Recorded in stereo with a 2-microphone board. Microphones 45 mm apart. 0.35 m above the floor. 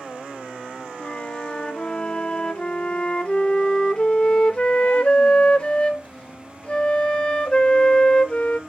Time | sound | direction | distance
1.0 | a flute | 25° left (ahead or behind) | 0.6 m